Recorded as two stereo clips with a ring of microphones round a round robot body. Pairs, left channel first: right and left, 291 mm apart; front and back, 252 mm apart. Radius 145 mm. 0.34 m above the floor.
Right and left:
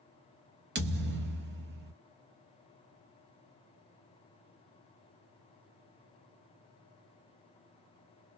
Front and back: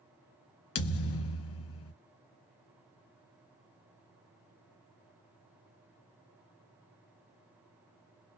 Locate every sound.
0.8 s a thud: 35° left, 0.7 m